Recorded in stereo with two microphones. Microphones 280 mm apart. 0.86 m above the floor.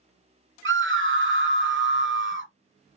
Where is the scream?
45° right (ahead or behind), 0.7 m.